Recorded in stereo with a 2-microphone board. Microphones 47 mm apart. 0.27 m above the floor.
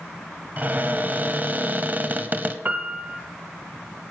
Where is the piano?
40° right (ahead or behind), 1.1 m.